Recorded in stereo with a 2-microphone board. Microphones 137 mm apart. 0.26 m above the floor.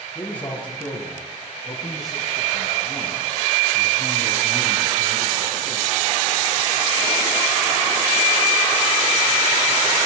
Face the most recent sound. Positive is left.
turn(degrees=-25)  # may be behind; listen again after turning